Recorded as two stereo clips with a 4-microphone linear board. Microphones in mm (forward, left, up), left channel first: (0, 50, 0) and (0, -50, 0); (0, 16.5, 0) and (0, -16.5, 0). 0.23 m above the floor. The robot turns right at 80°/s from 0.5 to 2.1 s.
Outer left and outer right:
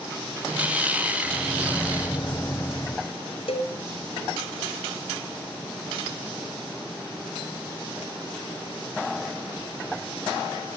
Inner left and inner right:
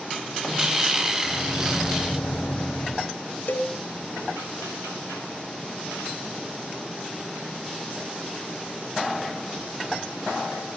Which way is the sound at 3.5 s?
70° left (ahead or behind).